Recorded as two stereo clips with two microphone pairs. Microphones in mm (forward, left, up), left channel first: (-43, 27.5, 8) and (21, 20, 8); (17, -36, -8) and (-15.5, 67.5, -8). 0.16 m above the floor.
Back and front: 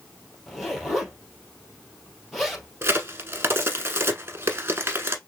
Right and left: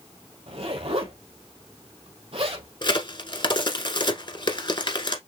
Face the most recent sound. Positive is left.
turn(degrees=-45)